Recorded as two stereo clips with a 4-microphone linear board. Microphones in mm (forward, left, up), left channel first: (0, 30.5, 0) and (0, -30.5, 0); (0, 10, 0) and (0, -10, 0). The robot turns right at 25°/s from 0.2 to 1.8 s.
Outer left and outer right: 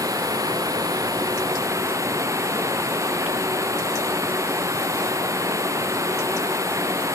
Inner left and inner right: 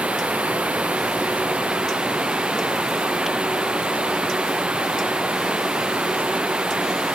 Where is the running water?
100° right; by 7.2 s 60° right.